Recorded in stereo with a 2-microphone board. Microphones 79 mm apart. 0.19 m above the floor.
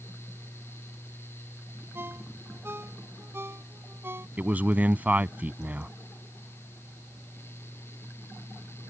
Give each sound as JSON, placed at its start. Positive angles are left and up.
{"t": 1.9, "sound": "a ringtone", "side_deg": -30}
{"t": 4.4, "sound": "a man speaking", "side_deg": -20}